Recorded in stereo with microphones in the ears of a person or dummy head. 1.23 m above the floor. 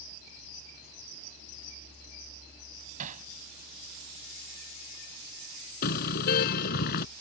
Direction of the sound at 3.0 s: 45° right (ahead or behind).